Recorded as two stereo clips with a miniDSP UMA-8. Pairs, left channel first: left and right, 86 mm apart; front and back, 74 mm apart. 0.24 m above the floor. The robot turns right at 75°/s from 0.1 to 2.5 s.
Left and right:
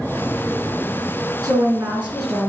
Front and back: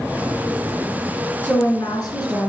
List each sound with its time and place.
1.4 s a woman speaking: 50° right, 3 m; by 2.5 s 30° left, 3 m